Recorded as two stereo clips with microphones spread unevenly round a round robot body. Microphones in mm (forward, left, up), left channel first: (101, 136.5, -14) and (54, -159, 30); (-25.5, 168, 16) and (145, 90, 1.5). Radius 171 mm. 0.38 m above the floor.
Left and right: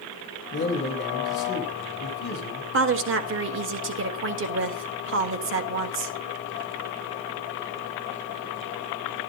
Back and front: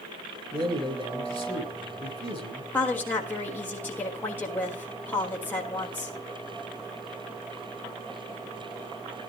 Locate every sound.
0.5 s a man speaking: 35° left, 3.5 m
2.7 s a woman speaking: 125° right, 1.5 m